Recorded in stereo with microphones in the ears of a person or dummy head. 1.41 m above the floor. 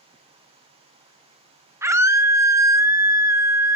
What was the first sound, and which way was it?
A scream, 15° right (ahead or behind).